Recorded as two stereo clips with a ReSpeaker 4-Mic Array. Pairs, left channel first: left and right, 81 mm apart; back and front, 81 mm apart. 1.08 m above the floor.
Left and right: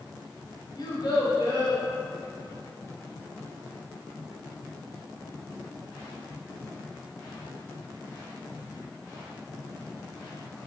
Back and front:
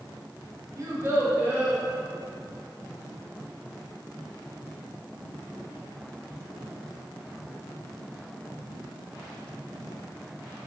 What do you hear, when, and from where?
0.8 s a child speaking: 50° left, 0.8 m; by 1.8 s 75° left, 1.3 m